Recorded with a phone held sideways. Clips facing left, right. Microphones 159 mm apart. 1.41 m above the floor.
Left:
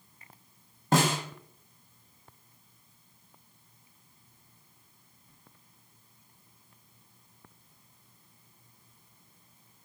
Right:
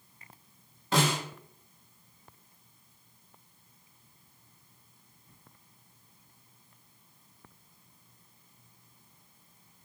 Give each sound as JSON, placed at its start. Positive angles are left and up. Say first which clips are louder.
{"t": 0.9, "sound": "a snare drum", "louder": "left 2 dB", "side_deg": 45, "distance_m": 0.7}